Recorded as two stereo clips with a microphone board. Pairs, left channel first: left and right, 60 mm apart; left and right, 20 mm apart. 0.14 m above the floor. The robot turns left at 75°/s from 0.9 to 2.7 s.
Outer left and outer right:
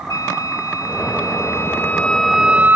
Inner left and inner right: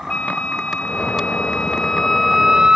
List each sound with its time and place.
0.1 s a flute: 100° left; by 2.8 s 35° right